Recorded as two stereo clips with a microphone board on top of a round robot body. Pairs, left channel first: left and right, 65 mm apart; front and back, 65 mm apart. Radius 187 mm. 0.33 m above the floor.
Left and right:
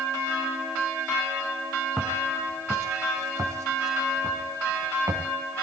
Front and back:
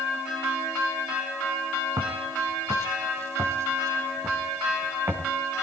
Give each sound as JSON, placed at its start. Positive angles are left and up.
{"t": 2.0, "sound": "footsteps", "azimuth_deg": -155, "distance_m": 3.0}